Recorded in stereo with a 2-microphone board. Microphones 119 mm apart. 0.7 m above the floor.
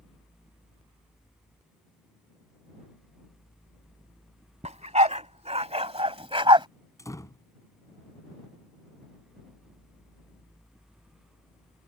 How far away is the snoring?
I don't hear snoring.